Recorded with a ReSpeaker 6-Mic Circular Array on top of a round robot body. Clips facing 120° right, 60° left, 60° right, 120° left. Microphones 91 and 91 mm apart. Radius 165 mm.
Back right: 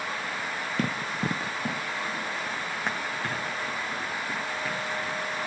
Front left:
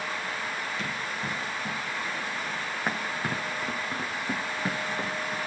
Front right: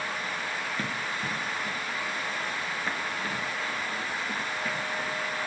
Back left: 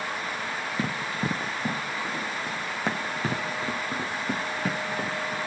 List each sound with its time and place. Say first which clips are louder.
0.8 s running footsteps: back right 4 dB, back left 3 dB; 165° right, 1.5 m; by 5.4 s 115° left, 3 m